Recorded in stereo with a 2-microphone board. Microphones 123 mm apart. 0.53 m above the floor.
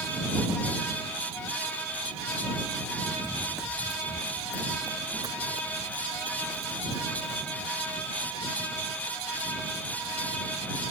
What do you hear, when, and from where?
3.2 s running footsteps: 5° left (ahead or behind); by 8.7 s 45° right (ahead or behind)